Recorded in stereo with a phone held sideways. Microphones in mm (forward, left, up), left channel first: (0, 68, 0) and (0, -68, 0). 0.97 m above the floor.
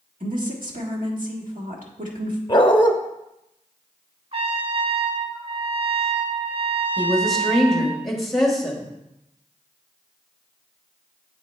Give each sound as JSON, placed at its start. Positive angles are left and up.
{"t": 0.2, "sound": "a woman speaking", "side_deg": -80, "distance_m": 1.6}
{"t": 2.5, "sound": "a dog barking", "side_deg": 35, "distance_m": 0.7}
{"t": 4.3, "sound": "a trumpet", "side_deg": -50, "distance_m": 1.1}
{"t": 7.0, "sound": "a woman speaking", "side_deg": 0, "distance_m": 1.5}